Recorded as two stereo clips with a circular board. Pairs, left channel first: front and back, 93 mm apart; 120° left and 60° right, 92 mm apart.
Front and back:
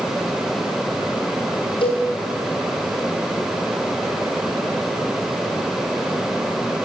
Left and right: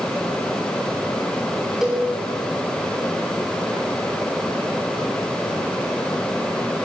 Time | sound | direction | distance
1.8 | a cowbell | 25° left | 7 m